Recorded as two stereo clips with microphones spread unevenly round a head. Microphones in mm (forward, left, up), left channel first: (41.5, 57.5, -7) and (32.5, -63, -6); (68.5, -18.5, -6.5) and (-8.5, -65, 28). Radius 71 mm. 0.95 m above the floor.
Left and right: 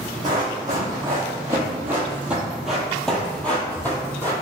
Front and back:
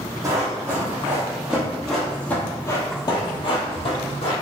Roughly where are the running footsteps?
Behind right.